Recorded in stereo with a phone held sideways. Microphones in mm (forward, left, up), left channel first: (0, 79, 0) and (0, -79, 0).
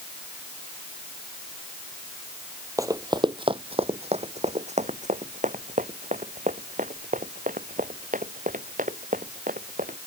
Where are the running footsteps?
20° right (ahead or behind); by 10.0 s 60° right (ahead or behind).